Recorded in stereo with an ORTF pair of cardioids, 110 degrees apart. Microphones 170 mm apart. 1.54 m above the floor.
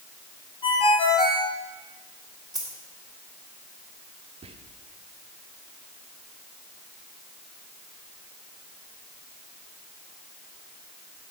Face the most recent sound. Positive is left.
turn(degrees=-35)